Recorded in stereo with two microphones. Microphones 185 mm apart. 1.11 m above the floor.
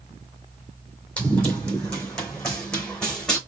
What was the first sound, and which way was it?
Running footsteps, 5° left (ahead or behind).